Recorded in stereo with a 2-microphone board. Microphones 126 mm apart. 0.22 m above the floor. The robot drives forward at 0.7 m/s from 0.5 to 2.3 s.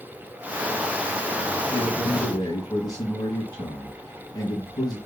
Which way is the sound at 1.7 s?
30° left (ahead or behind).